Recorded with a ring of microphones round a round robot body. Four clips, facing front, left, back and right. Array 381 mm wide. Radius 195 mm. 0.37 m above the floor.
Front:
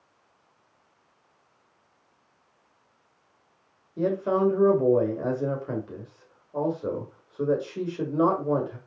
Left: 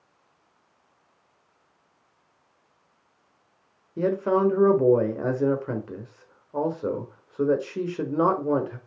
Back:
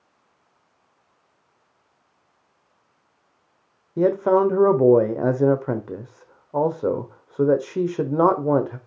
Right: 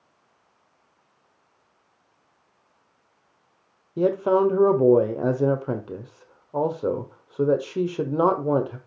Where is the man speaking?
165° right, 1.5 m.